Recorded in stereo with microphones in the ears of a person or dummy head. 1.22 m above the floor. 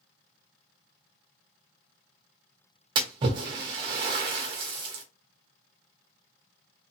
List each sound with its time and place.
3.0 s a splash: 25° right (ahead or behind), 0.8 m